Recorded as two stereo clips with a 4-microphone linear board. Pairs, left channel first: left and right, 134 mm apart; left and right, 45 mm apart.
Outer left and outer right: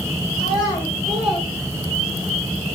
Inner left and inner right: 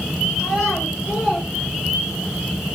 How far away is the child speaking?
About 2 m.